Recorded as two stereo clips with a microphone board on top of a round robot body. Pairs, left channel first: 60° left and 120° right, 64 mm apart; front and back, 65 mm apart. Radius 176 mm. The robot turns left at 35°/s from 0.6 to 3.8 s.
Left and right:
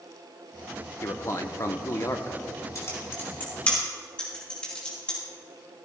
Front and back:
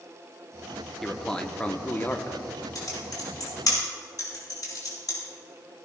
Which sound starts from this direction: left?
A man speaking, at 1.0 s.